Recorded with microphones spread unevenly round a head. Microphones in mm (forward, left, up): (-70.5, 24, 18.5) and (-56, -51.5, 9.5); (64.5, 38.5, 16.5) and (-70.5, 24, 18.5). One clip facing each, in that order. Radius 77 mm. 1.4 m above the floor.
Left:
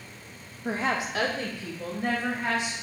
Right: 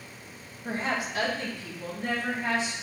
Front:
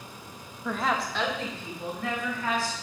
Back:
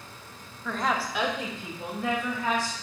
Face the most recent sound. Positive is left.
turn(degrees=120)